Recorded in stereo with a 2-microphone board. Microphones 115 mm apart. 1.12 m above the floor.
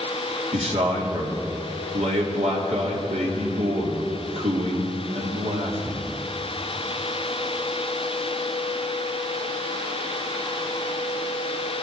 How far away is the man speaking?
About 3 m.